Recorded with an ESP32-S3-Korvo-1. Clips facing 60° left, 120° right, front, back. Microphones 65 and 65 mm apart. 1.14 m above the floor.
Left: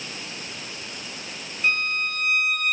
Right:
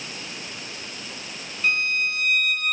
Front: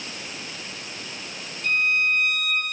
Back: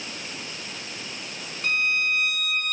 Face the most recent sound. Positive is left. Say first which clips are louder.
# right 1 dB, front 2 dB
turn(degrees=150)